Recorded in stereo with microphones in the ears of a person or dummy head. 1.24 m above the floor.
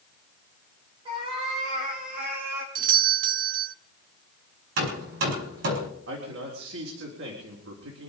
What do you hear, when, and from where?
1.1 s a cat meowing: 30° right (ahead or behind), 4 m; by 2.6 s 65° right (ahead or behind), 4.5 m
2.8 s a doorbell: 45° right (ahead or behind), 0.6 m
4.8 s hammering: 70° right (ahead or behind), 5 m
6.1 s a man speaking: 80° right, 4 m